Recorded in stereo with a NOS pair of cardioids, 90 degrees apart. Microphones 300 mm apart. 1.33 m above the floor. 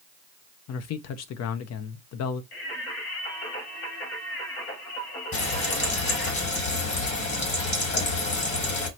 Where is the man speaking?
70° left, 0.7 m.